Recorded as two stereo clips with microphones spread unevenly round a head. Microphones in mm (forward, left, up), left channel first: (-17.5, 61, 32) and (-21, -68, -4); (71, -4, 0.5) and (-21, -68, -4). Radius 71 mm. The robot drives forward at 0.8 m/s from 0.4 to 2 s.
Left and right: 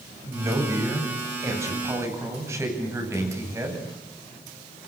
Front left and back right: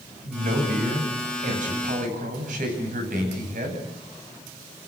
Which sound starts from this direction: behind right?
A man speaking, at 0.2 s.